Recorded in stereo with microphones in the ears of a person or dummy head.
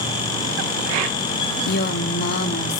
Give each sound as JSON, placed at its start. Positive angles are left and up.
{"t": 1.7, "sound": "a woman speaking", "side_deg": 55, "distance_m": 0.6}